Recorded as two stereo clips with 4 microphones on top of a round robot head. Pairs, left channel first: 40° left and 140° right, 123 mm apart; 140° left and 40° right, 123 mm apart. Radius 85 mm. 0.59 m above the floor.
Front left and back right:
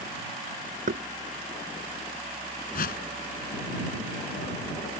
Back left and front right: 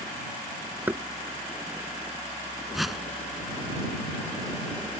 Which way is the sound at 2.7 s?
50° left.